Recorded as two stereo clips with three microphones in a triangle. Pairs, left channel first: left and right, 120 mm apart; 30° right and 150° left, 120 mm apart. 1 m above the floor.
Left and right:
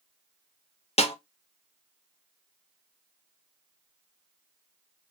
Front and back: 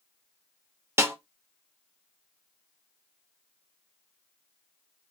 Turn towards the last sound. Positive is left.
turn(degrees=85)